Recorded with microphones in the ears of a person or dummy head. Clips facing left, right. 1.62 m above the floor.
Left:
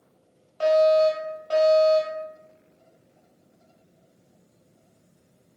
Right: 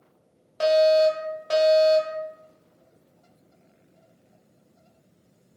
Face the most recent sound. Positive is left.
turn(degrees=-70)  # may be behind; listen again after turning